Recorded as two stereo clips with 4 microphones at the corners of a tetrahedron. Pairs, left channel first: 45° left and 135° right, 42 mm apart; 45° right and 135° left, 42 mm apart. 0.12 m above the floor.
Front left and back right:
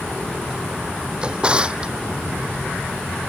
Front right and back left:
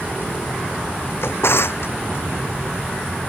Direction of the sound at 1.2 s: 65° right.